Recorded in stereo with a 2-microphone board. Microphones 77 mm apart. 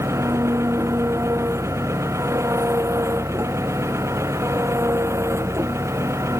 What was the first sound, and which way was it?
An engine running, 35° right (ahead or behind).